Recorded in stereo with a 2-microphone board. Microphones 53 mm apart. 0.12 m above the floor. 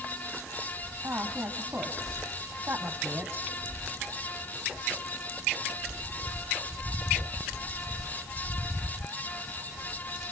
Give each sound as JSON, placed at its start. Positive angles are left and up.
{"t": 1.0, "sound": "a woman speaking", "side_deg": -35, "distance_m": 3.5}